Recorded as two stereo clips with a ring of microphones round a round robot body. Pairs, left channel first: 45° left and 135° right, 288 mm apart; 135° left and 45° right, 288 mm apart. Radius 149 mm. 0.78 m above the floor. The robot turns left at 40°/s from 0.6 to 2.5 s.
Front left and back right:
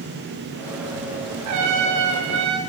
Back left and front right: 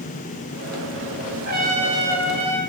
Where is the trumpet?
100° right, 2 m; by 2.6 s 145° right, 2 m.